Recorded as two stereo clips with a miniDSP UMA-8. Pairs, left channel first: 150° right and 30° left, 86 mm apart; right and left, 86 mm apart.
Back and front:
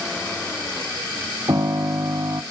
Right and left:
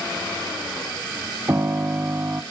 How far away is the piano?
About 0.8 m.